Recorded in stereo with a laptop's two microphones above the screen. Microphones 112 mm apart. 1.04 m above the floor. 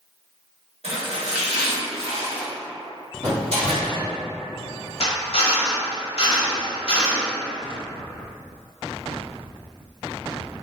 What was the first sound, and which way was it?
Chopping, 70° right (ahead or behind).